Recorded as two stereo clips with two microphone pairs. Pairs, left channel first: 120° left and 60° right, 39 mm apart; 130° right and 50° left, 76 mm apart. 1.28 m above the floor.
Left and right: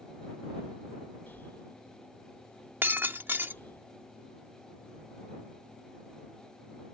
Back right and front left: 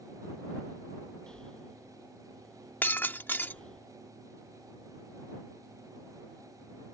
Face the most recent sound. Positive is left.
turn(degrees=-65)